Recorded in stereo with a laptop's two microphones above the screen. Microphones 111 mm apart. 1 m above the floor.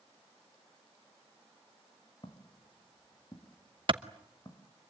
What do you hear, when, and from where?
2.2 s footsteps: 50° left (ahead or behind), 1.8 m; by 4.7 s 40° left (ahead or behind), 3 m
3.9 s a clap: 45° right (ahead or behind), 0.9 m